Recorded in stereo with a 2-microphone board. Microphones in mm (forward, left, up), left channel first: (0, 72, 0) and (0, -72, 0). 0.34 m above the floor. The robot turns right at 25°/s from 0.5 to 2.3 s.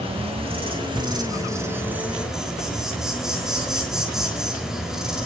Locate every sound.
0.0 s an insect: 50° right, 3.5 m; by 5.3 s 5° right, 3.5 m